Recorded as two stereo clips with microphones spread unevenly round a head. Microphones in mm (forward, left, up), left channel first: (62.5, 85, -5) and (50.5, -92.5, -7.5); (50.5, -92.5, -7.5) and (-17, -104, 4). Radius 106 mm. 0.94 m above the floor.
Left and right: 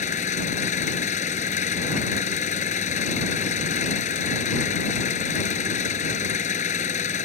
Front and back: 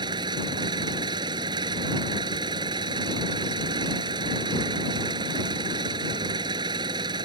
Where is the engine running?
145° left.